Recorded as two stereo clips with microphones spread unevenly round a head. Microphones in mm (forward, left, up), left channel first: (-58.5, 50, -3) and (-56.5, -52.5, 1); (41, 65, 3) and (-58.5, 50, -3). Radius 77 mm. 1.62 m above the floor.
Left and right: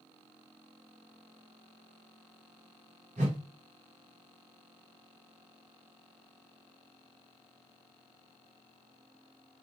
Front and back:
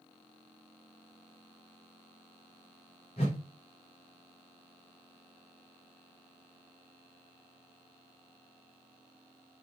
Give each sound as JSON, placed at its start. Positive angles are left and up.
{"t": 3.2, "sound": "a whoosh", "azimuth_deg": -45, "distance_m": 0.7}